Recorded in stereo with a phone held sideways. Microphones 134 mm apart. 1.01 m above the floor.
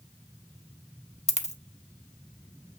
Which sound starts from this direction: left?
A dropped coin, at 1.3 s.